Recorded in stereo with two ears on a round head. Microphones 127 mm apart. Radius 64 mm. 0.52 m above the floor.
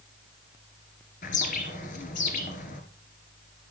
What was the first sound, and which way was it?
A bird, 60° left (ahead or behind).